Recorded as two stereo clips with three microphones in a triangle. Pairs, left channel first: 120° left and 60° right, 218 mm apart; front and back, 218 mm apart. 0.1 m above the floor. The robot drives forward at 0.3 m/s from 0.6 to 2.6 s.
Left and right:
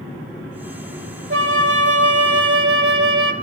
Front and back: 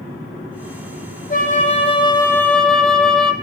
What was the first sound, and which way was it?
A flute, 45° right.